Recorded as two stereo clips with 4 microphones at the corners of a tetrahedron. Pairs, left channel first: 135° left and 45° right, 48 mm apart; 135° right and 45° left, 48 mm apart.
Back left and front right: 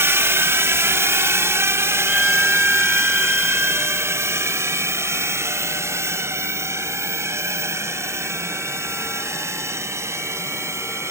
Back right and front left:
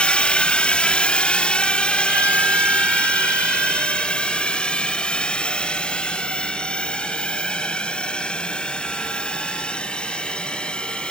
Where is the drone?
70° right; by 11.1 s 65° right.